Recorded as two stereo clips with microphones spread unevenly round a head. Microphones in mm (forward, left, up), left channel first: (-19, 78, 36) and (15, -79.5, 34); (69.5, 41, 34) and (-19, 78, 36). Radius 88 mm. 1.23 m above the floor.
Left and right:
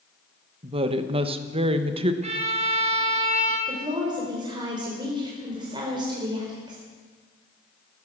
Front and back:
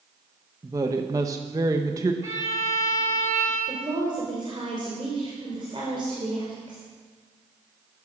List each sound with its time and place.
0.6 s a woman speaking: 135° right, 1.1 m
2.2 s a violin: 130° right, 2 m
3.7 s a woman speaking: 140° right, 4 m